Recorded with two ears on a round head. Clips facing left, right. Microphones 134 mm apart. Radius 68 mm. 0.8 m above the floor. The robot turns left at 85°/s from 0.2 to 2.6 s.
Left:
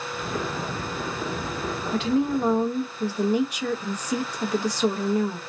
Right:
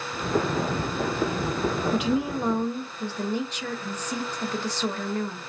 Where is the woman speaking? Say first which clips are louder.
Left 2 dB; 15° right (ahead or behind), 0.7 m; by 5.4 s 10° left (ahead or behind), 0.7 m.